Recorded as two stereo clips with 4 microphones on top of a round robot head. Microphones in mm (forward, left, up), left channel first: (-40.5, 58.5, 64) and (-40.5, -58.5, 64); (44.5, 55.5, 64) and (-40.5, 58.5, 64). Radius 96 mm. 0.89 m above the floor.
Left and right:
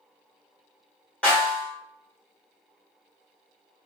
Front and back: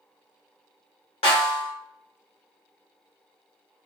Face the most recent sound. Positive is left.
turn(degrees=10)